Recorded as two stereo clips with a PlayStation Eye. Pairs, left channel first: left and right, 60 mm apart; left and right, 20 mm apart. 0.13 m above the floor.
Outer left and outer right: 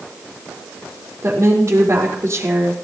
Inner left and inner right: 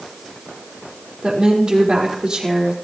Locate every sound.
1.2 s a woman speaking: 55° right (ahead or behind), 5 m